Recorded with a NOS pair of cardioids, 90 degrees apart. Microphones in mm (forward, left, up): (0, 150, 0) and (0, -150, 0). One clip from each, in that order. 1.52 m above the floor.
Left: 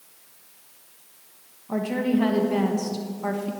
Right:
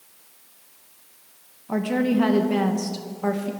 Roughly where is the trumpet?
No trumpet in this recording.